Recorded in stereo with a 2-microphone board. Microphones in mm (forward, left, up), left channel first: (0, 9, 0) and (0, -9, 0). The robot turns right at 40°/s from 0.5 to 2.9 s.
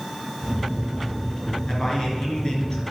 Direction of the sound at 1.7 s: 35° left.